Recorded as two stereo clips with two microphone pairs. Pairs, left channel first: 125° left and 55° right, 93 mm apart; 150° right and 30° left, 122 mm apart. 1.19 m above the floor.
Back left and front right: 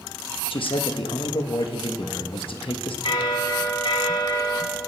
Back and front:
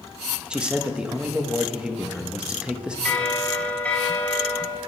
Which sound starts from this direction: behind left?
A bell, at 3.0 s.